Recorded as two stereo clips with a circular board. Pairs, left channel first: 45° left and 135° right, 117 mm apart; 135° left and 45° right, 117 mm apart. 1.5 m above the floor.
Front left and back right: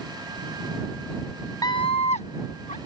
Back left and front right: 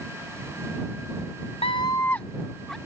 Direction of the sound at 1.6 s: 105° left.